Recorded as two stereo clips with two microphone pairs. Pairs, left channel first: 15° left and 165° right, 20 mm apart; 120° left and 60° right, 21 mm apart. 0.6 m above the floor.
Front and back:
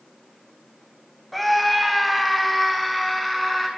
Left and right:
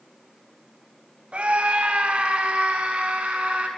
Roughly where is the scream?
Right.